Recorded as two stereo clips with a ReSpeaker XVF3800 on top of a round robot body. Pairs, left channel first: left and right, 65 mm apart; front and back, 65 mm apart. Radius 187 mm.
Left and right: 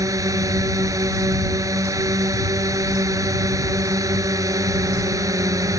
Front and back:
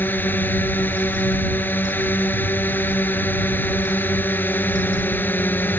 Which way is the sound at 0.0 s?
60° right.